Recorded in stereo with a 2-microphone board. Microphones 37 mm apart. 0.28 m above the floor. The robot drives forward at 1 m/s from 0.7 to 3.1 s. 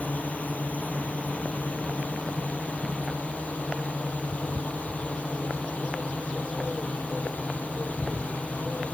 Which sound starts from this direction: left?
A drone, at 0.0 s.